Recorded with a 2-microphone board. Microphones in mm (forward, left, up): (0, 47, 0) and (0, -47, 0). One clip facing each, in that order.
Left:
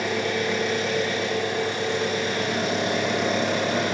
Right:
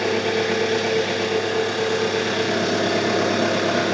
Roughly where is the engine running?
Right.